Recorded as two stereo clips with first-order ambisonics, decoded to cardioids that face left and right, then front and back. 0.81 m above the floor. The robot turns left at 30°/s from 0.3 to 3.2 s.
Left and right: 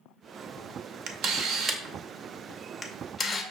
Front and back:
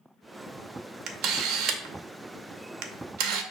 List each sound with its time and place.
1.1 s a camera shutter: 130° right, 0.6 m; by 3.4 s 165° left, 0.6 m